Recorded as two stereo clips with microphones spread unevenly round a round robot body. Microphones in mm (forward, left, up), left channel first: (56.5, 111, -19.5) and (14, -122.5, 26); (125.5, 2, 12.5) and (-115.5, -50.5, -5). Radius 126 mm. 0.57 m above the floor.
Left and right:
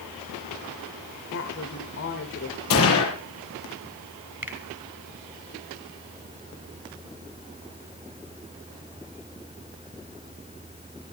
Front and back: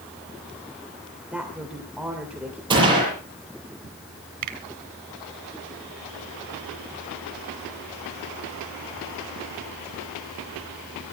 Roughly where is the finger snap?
Behind.